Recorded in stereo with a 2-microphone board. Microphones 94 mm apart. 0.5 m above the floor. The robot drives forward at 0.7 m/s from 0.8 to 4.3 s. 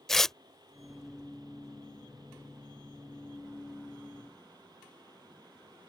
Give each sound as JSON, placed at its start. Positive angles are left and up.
{"t": 0.1, "sound": "tearing paper", "side_deg": 5}